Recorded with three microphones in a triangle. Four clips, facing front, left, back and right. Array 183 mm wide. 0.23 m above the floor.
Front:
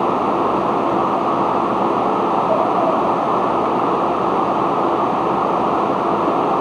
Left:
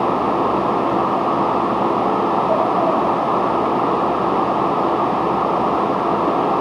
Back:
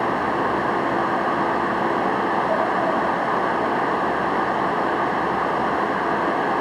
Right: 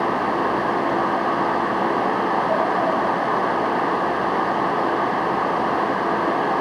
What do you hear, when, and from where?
Only background noise.